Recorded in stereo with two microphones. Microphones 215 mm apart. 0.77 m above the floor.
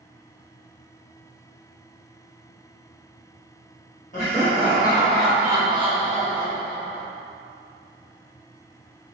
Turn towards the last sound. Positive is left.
turn(degrees=-55)  # may be behind; listen again after turning